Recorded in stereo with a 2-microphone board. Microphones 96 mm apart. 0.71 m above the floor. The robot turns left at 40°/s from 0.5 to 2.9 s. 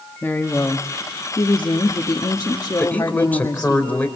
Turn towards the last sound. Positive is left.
turn(degrees=20)  # may be behind; listen again after turning